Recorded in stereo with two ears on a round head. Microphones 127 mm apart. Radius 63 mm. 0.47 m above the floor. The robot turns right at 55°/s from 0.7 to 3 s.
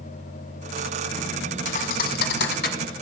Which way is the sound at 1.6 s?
50° left (ahead or behind).